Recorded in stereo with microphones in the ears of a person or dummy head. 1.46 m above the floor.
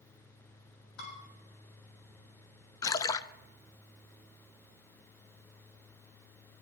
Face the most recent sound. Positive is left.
turn(degrees=20)  # may be behind; listen again after turning